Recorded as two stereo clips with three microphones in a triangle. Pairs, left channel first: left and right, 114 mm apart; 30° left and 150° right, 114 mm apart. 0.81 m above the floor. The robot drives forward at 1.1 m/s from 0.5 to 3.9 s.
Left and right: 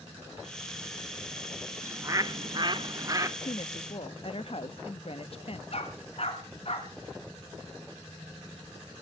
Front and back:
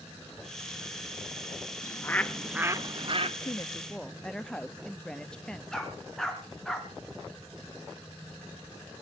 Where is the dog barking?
115° left, 2 m.